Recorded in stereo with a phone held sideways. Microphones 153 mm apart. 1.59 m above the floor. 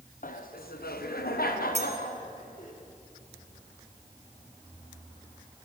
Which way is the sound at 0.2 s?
60° left (ahead or behind).